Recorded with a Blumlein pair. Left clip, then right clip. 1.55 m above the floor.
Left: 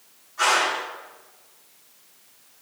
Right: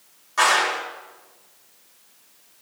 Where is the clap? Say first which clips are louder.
Right 2 dB; 50° right, 3 m.